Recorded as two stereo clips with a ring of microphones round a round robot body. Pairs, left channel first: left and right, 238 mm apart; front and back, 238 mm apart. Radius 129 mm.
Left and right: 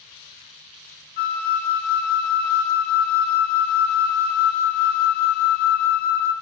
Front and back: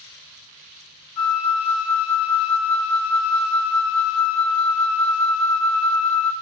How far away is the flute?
About 0.6 m.